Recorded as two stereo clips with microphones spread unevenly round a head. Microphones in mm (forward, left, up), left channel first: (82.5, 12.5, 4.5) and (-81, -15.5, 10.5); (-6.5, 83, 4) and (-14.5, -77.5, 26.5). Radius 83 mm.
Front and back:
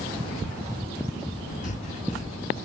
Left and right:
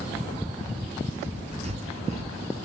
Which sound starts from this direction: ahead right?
Breathing, at 1.6 s.